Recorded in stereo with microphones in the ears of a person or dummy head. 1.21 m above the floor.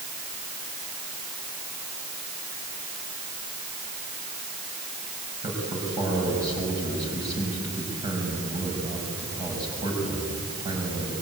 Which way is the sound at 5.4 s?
20° right (ahead or behind).